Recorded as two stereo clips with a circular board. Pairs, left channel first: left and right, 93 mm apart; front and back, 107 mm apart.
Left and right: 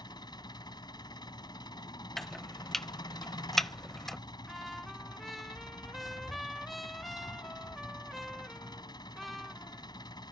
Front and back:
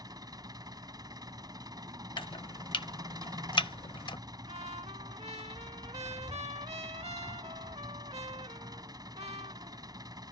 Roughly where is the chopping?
Ahead.